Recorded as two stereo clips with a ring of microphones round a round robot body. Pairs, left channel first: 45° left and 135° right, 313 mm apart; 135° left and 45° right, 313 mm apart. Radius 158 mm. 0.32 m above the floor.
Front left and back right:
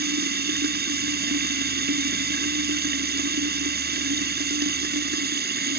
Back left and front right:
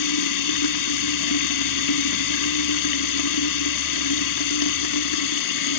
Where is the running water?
165° left.